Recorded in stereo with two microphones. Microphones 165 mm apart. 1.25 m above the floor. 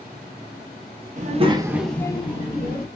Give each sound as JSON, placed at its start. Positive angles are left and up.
{"t": 1.2, "sound": "a child speaking", "side_deg": -45, "distance_m": 0.6}